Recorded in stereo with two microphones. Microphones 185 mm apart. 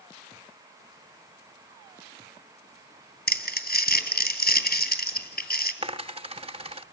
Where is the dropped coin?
35° right (ahead or behind), 0.8 m.